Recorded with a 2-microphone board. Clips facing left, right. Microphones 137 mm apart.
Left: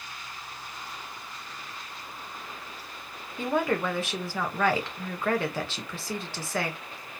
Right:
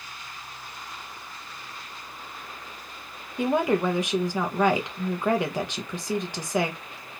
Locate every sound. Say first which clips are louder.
3.4 s a woman speaking: right 4 dB; 15° right (ahead or behind), 0.9 m